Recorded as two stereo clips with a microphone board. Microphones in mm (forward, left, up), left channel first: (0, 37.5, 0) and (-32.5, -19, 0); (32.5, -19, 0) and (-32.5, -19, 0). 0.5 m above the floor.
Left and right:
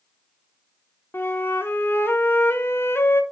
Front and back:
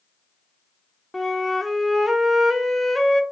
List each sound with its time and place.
1.1 s a flute: 90° left, 0.6 m